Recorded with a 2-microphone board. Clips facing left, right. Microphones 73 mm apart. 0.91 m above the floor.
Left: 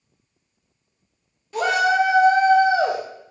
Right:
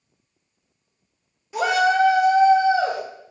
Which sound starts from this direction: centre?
A shout, at 1.5 s.